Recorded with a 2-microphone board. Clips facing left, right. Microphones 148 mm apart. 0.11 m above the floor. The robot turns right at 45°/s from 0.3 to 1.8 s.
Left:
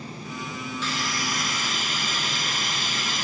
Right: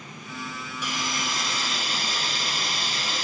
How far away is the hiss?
About 0.7 m.